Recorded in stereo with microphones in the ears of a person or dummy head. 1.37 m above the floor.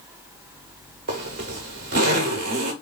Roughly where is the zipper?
Right.